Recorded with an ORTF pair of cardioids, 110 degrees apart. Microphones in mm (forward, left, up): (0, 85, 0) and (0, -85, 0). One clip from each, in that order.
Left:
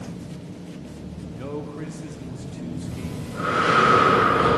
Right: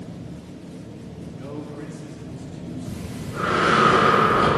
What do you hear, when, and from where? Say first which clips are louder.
0.0 s an engine running: left 1 dB; 35° left, 2.5 m
1.3 s a man speaking: left 3 dB; 25° left, 0.6 m
2.9 s breathing: even; 25° right, 1.3 m